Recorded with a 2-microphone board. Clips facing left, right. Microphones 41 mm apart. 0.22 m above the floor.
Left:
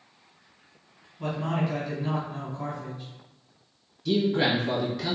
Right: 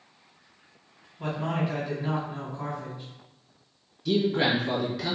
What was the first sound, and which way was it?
A man speaking, 15° right (ahead or behind).